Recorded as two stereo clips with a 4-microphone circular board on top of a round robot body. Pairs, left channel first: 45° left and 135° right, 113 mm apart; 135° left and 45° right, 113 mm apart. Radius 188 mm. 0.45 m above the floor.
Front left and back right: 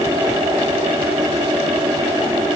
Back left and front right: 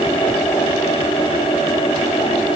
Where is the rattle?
I don't hear a rattle.